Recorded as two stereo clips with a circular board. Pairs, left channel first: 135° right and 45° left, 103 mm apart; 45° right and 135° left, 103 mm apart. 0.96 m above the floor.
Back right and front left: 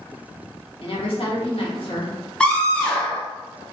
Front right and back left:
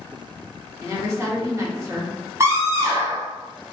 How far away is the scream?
About 0.6 m.